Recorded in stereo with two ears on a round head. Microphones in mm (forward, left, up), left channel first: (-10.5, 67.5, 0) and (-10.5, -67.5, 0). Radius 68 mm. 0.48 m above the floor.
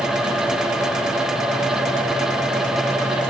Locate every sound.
Only background noise.